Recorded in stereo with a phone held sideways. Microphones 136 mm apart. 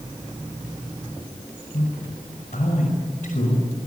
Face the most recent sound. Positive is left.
turn(degrees=85)